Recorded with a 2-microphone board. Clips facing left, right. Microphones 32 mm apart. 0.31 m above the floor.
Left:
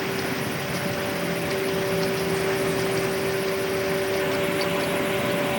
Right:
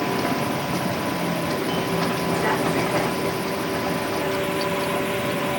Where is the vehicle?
70° right (ahead or behind); by 5.6 s 60° right (ahead or behind).